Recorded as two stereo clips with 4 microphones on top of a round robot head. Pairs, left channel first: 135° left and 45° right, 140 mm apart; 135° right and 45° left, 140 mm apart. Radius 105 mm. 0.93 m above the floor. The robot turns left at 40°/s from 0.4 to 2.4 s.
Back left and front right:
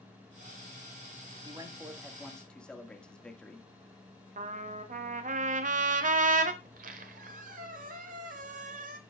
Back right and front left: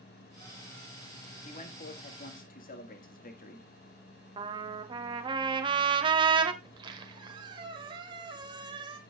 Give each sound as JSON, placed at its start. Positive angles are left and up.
{"t": 1.4, "sound": "a man speaking", "azimuth_deg": -100, "distance_m": 1.8}
{"t": 4.4, "sound": "a trumpet", "azimuth_deg": -15, "distance_m": 1.2}
{"t": 6.6, "sound": "a squeak", "azimuth_deg": -15, "distance_m": 1.0}